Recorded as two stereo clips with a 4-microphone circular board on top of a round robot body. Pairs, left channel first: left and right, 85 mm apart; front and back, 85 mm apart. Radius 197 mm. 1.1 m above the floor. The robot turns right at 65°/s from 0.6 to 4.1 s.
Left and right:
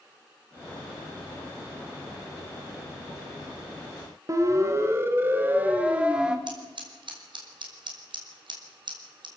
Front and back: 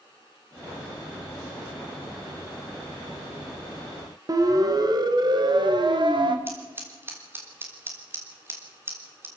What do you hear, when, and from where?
4.3 s a siren: 140° right, 2.5 m; by 6.4 s 170° right, 2 m
6.5 s scissors: 115° right, 3.5 m